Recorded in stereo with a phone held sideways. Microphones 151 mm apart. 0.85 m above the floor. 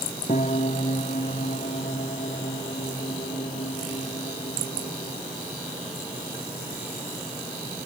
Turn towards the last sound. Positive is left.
turn(degrees=55)  # may be behind; listen again after turning